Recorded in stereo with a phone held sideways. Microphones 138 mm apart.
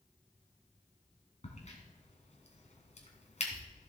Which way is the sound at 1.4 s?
55° left (ahead or behind).